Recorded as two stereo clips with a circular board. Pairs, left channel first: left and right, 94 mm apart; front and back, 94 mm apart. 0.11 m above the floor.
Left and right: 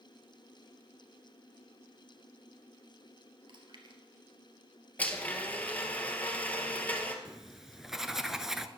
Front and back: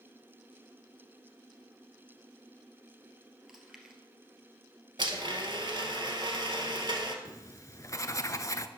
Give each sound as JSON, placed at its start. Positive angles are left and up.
{"t": 3.5, "sound": "chewing", "azimuth_deg": -95, "distance_m": 1.8}
{"t": 5.0, "sound": "a blender", "azimuth_deg": 160, "distance_m": 1.6}
{"t": 7.2, "sound": "writing", "azimuth_deg": -5, "distance_m": 0.6}